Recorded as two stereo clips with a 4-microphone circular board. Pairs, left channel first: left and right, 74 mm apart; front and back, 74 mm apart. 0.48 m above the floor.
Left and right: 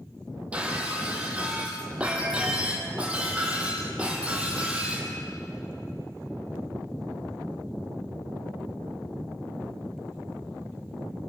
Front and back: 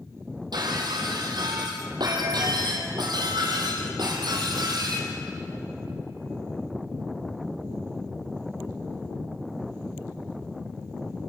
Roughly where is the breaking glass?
Behind.